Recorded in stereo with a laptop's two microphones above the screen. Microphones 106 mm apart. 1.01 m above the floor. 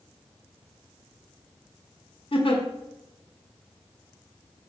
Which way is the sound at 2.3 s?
55° left (ahead or behind).